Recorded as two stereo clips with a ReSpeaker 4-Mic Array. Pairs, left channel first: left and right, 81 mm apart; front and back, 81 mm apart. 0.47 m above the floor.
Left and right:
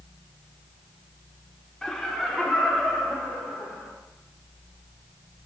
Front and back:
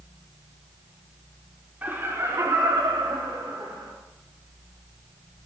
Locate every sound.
1.8 s laughter: 165° left, 1.4 m; by 3.9 s 175° right, 4 m